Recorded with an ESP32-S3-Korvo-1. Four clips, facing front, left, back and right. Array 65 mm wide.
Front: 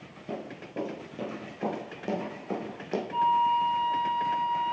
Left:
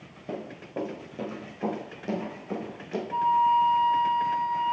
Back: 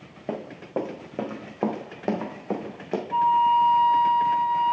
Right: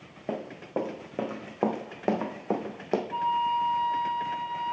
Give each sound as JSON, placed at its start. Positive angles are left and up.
{"t": 0.3, "sound": "running footsteps", "azimuth_deg": -150, "distance_m": 2.5}
{"t": 3.1, "sound": "a flute", "azimuth_deg": 170, "distance_m": 2.0}